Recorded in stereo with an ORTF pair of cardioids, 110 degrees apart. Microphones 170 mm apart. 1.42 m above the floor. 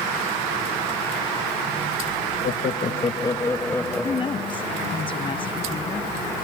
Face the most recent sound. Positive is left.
turn(degrees=30)